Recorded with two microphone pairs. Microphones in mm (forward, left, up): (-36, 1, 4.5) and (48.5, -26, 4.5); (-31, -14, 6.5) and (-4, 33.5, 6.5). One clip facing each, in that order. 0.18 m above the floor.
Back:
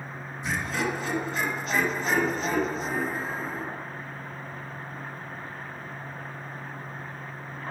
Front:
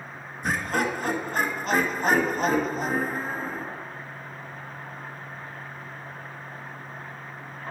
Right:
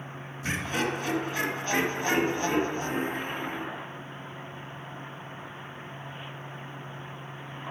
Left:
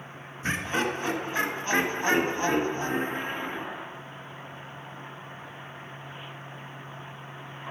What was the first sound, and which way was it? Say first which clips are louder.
Laughter: front 3 dB, left 2 dB; 10° left.